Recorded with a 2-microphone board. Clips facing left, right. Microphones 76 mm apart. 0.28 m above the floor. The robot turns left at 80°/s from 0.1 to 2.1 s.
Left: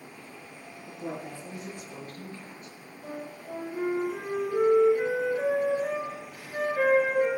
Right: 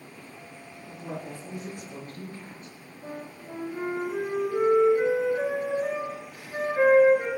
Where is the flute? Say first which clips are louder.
Even; 25° right (ahead or behind), 4 m.